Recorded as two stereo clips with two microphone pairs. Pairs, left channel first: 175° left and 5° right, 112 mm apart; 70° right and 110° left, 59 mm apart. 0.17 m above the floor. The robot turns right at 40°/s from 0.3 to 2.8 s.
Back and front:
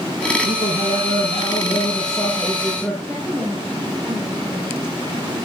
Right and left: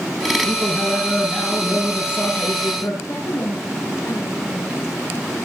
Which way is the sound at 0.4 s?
165° left.